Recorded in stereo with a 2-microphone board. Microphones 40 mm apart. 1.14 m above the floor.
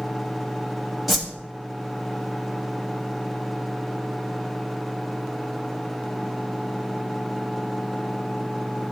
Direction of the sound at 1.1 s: Centre (ahead or behind).